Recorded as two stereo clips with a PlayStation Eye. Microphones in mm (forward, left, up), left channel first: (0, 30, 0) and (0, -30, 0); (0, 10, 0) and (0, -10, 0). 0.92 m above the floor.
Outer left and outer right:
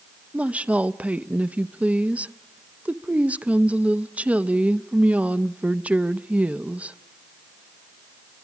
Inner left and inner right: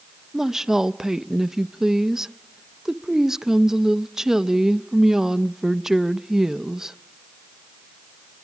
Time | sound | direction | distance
0.3 | a woman speaking | 25° right (ahead or behind) | 0.7 m